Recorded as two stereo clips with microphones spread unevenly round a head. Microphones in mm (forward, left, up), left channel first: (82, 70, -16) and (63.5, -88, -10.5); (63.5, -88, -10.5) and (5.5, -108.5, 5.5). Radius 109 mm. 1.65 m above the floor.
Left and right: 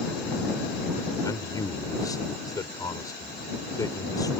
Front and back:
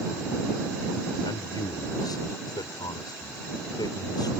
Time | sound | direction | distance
1.2 | a man speaking | 15° left | ?